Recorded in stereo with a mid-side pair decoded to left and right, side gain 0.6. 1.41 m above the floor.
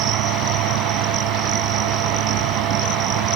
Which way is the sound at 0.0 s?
70° right.